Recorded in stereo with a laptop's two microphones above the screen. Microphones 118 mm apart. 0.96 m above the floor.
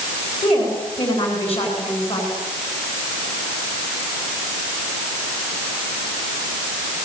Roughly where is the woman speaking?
Left.